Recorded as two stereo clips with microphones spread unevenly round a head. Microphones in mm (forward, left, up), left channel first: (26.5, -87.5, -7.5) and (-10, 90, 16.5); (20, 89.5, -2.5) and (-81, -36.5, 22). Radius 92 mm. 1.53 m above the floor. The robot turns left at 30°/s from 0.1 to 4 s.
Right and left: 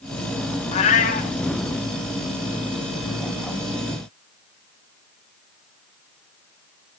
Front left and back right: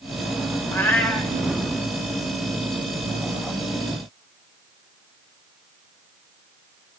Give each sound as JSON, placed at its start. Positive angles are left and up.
{"t": 0.7, "sound": "a cat meowing", "azimuth_deg": -30, "distance_m": 1.1}